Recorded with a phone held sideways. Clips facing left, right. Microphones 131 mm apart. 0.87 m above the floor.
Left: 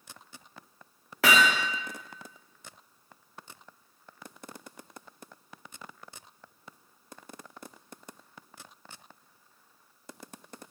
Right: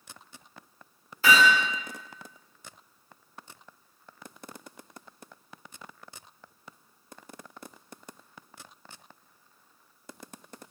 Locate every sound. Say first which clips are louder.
1.2 s hammering: right 2 dB; 80° left, 0.6 m